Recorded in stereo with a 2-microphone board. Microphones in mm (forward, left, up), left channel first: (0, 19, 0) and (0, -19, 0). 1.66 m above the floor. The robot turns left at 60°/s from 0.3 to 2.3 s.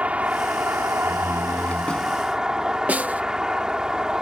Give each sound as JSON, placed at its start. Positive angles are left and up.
{"t": 0.0, "sound": "a vehicle", "azimuth_deg": -40}
{"t": 1.0, "sound": "a door slam", "azimuth_deg": 80}
{"t": 2.9, "sound": "a snare drum", "side_deg": -45}